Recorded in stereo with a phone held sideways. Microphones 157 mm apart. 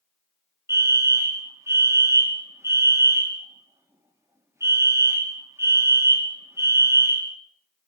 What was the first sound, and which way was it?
A fire alarm, 20° right (ahead or behind).